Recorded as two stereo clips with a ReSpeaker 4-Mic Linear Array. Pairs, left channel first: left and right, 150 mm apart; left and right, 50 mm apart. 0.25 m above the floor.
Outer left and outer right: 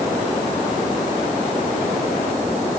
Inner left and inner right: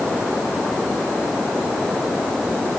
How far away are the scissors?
No scissors in this recording.